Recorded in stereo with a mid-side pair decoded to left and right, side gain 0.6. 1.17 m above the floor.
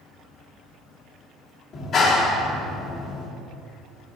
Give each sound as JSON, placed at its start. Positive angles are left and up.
{"t": 1.7, "sound": "a clap", "azimuth_deg": 45, "distance_m": 1.9}